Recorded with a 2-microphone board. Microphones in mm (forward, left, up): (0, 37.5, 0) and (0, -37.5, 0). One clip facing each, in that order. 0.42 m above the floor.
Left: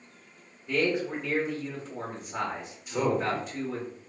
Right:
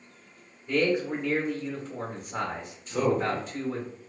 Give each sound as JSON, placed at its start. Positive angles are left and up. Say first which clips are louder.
{"t": 0.7, "sound": "a man speaking", "louder": "right 2 dB", "side_deg": 0, "distance_m": 1.0}
{"t": 2.9, "sound": "a man speaking", "louder": "right 1 dB", "side_deg": 10, "distance_m": 0.9}